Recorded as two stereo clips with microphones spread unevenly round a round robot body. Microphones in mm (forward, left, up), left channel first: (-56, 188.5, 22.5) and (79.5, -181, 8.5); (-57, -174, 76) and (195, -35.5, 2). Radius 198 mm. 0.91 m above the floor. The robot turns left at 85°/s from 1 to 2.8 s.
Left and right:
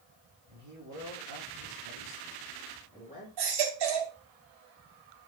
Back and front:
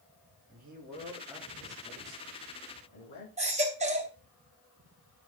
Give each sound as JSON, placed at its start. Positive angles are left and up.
{"t": 0.5, "sound": "a man speaking", "azimuth_deg": -25, "distance_m": 6.0}
{"t": 3.4, "sound": "a baby crying", "azimuth_deg": -40, "distance_m": 2.5}